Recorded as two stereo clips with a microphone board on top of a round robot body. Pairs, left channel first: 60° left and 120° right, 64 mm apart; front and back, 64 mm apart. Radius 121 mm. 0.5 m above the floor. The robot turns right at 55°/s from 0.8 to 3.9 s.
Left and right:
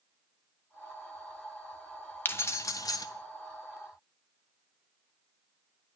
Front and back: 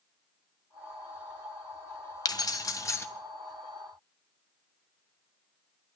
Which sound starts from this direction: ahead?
Keys jangling, at 2.2 s.